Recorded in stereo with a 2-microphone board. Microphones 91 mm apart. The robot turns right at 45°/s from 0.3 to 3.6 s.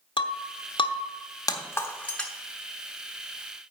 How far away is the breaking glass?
About 1.0 m.